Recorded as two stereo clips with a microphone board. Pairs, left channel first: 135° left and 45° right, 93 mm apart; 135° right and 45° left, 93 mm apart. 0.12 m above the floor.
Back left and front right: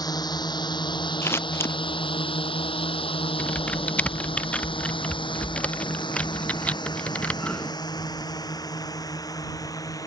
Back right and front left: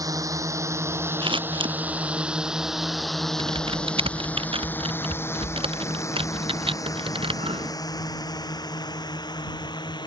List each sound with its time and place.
0.0 s a drone: 95° left; by 10.1 s 175° right
1.2 s scissors: 70° left
3.4 s typing on a keyboard: 60° left